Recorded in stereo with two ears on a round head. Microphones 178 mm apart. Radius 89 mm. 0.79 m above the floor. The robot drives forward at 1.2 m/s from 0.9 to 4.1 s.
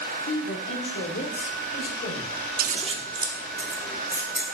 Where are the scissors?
45° right (ahead or behind), 0.6 m; by 4.4 s 10° right (ahead or behind), 2.5 m.